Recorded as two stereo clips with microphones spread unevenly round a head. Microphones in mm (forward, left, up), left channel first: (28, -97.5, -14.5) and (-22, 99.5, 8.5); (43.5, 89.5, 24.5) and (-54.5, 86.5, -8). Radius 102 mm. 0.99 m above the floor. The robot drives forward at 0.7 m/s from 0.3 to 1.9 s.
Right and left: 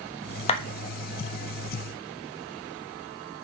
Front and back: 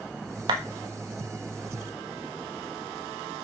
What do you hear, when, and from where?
0.5 s a clap: 135° right, 1.2 m; by 0.6 s 140° right, 1.2 m